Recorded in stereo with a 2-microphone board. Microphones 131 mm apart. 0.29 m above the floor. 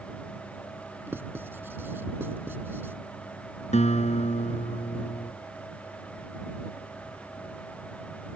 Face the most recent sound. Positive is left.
turn(degrees=60)  # may be behind; listen again after turning